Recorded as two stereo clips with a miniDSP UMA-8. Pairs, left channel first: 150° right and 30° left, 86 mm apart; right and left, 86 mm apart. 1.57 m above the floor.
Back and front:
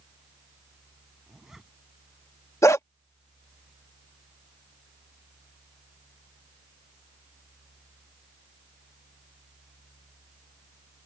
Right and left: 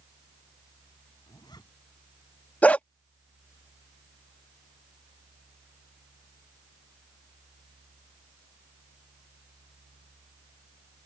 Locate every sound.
1.3 s a zipper: 55° right
2.6 s a dog barking: 150° right